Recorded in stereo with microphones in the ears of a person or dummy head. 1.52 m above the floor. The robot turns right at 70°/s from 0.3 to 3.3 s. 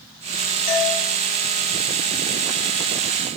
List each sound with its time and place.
0.7 s a doorbell: 50° left (ahead or behind), 2.5 m; by 1.0 s 70° left (ahead or behind), 2.5 m